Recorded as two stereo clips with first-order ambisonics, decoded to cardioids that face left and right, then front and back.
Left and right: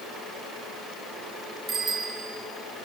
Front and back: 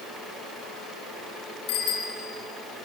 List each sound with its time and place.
1.7 s a bicycle bell: 25° right, 3.5 m